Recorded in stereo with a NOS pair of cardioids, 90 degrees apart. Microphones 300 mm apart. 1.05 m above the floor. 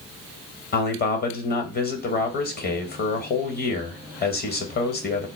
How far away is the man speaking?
About 1.0 m.